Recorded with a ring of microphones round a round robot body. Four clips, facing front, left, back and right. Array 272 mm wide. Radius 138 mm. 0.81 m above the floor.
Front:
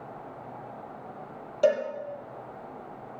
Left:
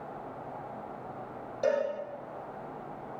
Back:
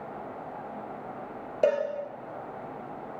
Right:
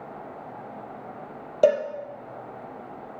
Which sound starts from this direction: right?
A cowbell, at 1.6 s.